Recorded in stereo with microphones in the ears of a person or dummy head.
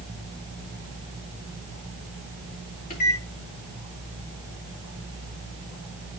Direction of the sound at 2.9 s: 55° left (ahead or behind).